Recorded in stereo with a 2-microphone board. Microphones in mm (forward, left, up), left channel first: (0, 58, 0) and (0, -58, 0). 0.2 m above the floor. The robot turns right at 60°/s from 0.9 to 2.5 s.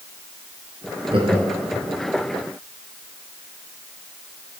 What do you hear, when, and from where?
1.1 s laughter: 50° right (ahead or behind), 3.5 m; by 1.9 s 10° right (ahead or behind), 3.5 m